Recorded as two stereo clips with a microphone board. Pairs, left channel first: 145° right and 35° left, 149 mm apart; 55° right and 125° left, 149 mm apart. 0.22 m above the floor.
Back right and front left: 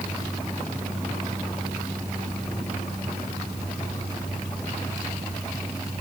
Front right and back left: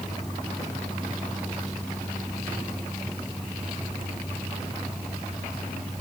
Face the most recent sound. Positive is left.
No sound to turn to.